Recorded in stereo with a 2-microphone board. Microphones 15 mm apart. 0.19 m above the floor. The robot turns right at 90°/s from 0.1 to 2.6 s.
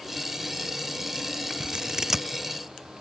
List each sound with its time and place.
1.6 s scissors: 75° right (ahead or behind); by 2.2 s 15° right (ahead or behind)